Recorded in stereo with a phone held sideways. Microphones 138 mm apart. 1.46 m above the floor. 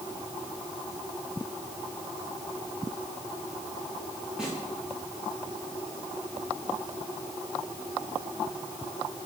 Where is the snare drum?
5° right (ahead or behind), 9.5 m.